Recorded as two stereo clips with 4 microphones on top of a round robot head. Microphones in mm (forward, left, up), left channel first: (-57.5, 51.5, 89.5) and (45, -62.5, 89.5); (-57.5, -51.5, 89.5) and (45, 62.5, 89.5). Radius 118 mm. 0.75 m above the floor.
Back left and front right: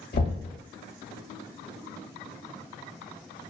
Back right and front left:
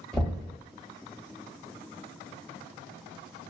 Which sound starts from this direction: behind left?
Knocking, at 0.1 s.